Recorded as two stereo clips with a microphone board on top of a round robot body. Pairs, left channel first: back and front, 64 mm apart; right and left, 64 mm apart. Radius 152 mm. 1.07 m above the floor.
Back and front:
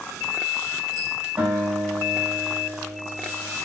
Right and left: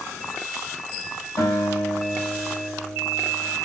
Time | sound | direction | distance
1.4 | a guitar | 65° right | 5.5 m